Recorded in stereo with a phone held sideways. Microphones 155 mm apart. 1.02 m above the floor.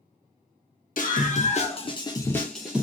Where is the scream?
60° left (ahead or behind), 1.2 m; by 2.8 s 10° right (ahead or behind), 0.7 m.